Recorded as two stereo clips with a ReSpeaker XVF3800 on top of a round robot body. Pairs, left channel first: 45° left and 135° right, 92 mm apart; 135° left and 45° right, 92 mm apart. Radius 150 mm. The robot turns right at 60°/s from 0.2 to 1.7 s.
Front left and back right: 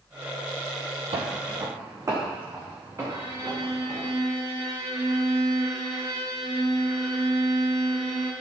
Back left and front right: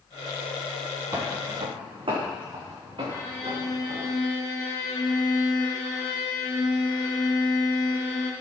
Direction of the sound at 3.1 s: 175° right.